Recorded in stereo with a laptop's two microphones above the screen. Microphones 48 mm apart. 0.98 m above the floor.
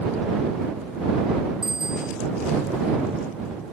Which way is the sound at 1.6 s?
10° right (ahead or behind).